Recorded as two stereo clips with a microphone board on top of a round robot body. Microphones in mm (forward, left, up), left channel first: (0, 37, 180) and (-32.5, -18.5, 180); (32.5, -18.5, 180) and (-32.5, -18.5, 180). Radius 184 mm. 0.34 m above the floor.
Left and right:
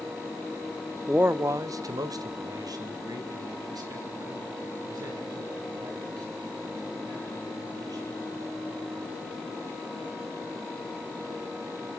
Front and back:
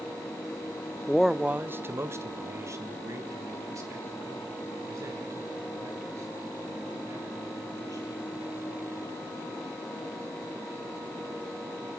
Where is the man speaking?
65° right, 0.8 m; by 8.1 s 145° right, 10 m.